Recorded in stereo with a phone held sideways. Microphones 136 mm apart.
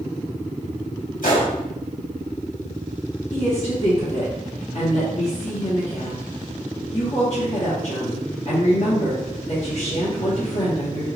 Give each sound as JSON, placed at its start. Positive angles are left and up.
{"t": 1.2, "sound": "a gunshot", "side_deg": 75, "distance_m": 1.5}
{"t": 3.3, "sound": "a woman speaking", "side_deg": 55, "distance_m": 1.1}